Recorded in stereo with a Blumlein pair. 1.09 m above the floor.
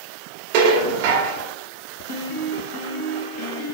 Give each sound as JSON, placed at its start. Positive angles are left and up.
{"t": 0.5, "sound": "dishes clattering", "azimuth_deg": -45, "distance_m": 1.4}
{"t": 2.1, "sound": "a piano", "azimuth_deg": 40, "distance_m": 1.2}